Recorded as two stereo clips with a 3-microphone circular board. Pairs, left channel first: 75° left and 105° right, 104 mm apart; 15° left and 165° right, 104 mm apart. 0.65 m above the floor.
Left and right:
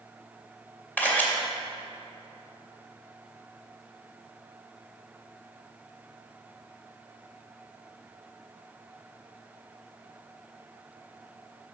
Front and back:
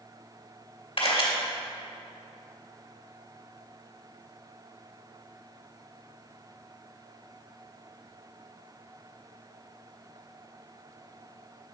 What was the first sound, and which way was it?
A camera shutter, straight ahead.